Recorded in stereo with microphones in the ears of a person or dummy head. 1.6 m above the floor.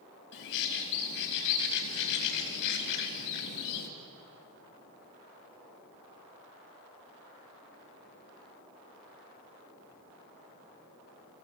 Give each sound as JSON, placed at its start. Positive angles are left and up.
{"t": 0.3, "sound": "a bird", "side_deg": 65, "distance_m": 4.0}